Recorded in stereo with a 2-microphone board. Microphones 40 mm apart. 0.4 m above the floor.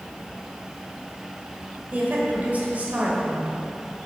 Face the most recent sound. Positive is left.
turn(degrees=-40)  # may be behind; listen again after turning